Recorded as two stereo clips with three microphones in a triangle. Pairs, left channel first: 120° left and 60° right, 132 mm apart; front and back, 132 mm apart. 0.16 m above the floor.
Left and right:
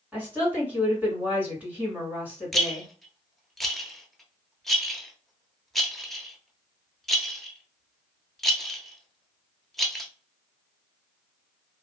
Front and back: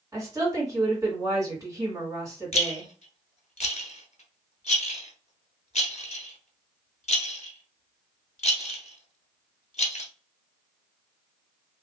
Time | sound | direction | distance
0.1 | a woman speaking | 130° right | 2 m
2.5 | a rattle | 30° left | 0.6 m